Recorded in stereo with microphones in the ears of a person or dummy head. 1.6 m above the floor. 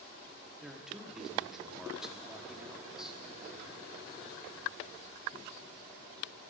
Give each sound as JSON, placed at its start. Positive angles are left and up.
{"t": 0.6, "sound": "a man speaking", "side_deg": -5, "distance_m": 1.2}